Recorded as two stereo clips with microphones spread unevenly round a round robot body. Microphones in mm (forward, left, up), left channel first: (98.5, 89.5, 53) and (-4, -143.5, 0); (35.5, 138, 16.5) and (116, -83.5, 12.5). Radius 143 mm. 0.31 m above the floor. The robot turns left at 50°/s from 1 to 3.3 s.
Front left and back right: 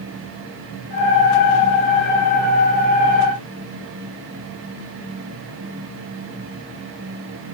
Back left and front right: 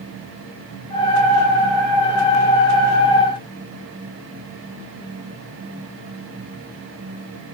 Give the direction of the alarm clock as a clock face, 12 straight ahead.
No alarm clock in this recording.